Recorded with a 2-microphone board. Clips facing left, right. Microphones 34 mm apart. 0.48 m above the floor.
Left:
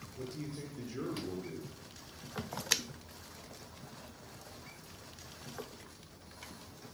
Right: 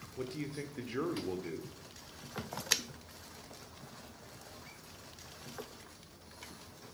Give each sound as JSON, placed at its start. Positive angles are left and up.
{"t": 0.2, "sound": "a man speaking", "side_deg": -40, "distance_m": 1.1}